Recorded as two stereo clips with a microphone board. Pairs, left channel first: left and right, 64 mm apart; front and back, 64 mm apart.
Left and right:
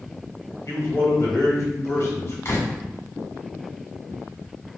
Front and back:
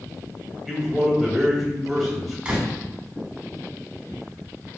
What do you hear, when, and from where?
0.7 s a man speaking: 95° left, 1.5 m
2.5 s a door slam: 120° left, 1.6 m